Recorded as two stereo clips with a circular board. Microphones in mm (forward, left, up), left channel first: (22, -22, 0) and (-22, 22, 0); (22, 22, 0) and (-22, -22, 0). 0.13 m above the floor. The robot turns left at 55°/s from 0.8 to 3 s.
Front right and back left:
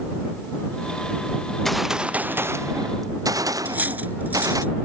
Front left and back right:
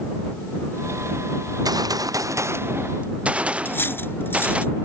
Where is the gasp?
I don't hear a gasp.